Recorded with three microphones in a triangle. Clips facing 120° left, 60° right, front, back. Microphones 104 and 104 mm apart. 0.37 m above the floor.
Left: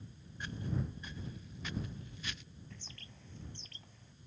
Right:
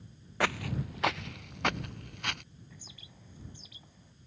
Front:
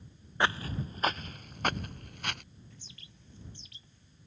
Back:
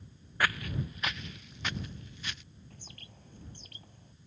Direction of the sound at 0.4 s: 65° right.